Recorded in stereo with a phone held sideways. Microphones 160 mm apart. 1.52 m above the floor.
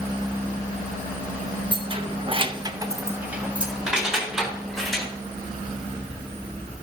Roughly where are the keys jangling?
Right.